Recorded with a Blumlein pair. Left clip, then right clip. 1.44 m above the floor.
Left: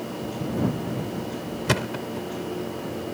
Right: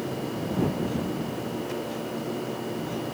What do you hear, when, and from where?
1.7 s a thud: 40° left